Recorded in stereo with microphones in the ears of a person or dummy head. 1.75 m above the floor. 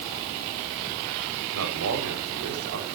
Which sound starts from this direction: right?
A man speaking, at 1.5 s.